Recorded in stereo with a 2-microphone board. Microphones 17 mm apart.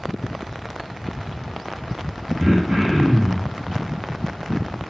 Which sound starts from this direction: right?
Throat clearing, at 2.4 s.